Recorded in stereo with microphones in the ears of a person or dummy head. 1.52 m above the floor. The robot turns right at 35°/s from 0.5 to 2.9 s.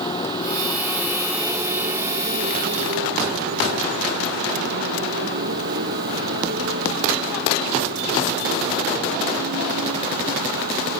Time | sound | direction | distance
0.0 | a motorcycle | 155° left | ?